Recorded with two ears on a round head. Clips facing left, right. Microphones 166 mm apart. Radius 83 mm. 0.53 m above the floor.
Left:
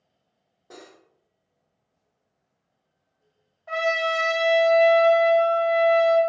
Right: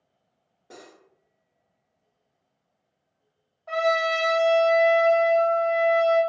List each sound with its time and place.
0.7 s cutlery clinking: centre (ahead or behind), 1.2 m
3.7 s a trumpet: 10° left (ahead or behind), 0.8 m